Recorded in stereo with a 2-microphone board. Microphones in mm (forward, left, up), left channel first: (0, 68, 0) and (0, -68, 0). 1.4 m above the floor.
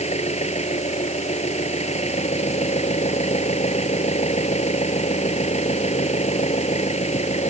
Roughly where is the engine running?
Left.